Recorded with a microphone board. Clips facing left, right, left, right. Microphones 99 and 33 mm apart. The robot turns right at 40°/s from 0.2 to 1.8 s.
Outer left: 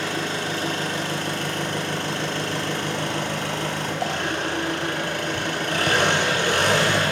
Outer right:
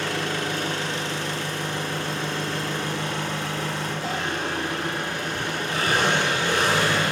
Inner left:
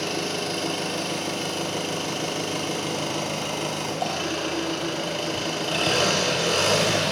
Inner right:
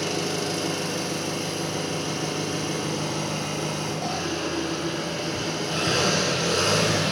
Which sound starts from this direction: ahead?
An engine running, at 0.0 s.